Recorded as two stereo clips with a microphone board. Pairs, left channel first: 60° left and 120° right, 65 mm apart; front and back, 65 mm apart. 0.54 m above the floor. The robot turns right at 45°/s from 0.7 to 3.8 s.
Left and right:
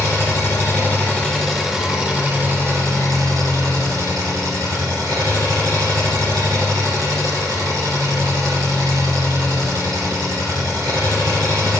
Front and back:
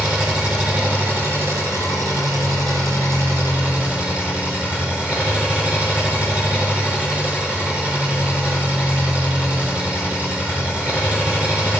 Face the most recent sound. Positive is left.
turn(degrees=-110)